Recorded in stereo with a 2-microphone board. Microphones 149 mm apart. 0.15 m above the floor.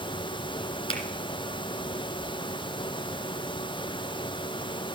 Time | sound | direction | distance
0.9 | a finger snap | 45° left (ahead or behind) | 2.0 m